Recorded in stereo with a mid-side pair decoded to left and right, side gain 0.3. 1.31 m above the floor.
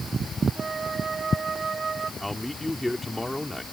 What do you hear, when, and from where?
0.6 s a flute: 50° right
2.2 s a man speaking: 15° left